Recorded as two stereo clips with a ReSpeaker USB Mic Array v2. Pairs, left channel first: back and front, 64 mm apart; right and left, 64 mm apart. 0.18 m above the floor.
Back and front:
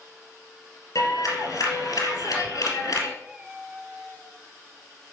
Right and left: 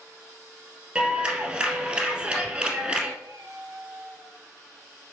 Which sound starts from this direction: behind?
A clap, at 0.9 s.